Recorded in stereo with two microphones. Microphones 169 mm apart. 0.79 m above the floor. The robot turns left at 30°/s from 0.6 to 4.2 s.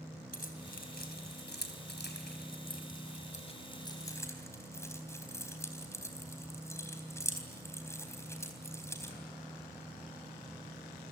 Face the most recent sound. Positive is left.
turn(degrees=15)  # may be behind; listen again after turning